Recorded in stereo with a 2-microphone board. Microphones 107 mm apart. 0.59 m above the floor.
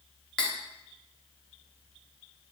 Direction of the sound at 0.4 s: 10° left (ahead or behind).